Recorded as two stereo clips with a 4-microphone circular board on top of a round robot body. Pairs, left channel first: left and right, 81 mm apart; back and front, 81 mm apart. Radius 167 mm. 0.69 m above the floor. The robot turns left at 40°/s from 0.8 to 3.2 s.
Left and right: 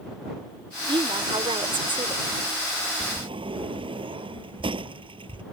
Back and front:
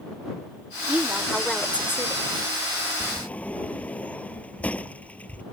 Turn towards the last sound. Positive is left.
turn(degrees=-105)